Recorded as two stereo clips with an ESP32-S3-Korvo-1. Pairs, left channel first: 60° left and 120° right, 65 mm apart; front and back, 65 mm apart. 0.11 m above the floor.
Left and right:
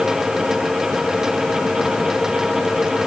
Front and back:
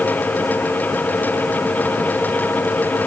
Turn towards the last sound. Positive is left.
No sound to turn to.